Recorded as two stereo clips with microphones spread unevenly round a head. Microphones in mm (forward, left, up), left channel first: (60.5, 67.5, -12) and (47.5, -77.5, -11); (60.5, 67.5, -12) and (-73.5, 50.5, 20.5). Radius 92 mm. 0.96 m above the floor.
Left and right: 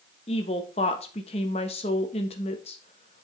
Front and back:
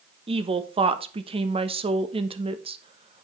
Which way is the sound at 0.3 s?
135° left.